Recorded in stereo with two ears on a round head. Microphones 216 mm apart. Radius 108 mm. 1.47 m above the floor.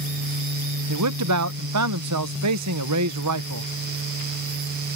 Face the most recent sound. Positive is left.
turn(degrees=-70)  # may be behind; listen again after turning